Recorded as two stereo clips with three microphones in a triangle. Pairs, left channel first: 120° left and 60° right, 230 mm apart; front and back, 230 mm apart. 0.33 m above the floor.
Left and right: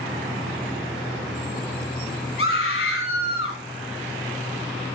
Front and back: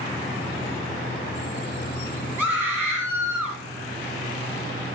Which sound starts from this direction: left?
A scream, at 2.4 s.